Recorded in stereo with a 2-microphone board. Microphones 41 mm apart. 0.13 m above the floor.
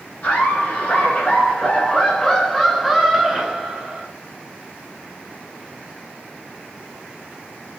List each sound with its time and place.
0.2 s laughter: 50° left (ahead or behind), 1.5 m; by 4.1 s 25° right (ahead or behind), 1.6 m